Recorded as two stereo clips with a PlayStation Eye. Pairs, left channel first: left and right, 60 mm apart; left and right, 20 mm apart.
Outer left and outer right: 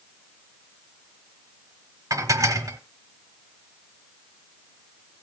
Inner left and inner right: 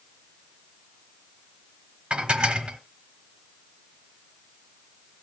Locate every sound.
2.1 s dishes clattering: 70° right (ahead or behind), 1.1 m